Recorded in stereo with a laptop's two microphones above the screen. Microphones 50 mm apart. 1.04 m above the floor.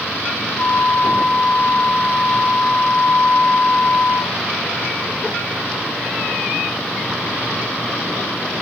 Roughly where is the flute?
Right.